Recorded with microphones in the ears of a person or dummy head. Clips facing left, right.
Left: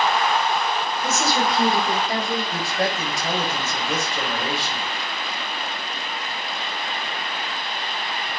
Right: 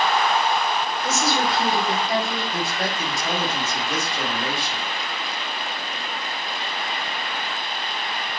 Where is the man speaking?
70° left (ahead or behind), 4 m.